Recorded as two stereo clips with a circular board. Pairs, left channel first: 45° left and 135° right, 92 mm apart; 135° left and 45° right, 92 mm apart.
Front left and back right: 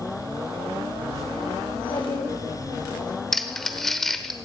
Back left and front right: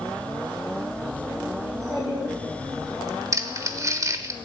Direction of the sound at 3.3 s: 40° right.